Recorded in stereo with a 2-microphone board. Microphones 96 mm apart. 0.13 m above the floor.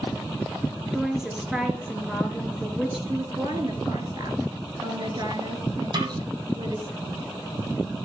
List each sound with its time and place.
0.9 s a woman speaking: 5° right (ahead or behind), 2.5 m
3.1 s a woman speaking: 45° right (ahead or behind), 2.5 m
5.9 s a snare drum: 50° right (ahead or behind), 3 m